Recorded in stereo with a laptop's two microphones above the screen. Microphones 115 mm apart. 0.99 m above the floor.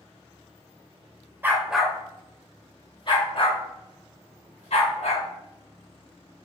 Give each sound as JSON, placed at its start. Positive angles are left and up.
{"t": 1.4, "sound": "a dog barking", "side_deg": -15, "distance_m": 0.7}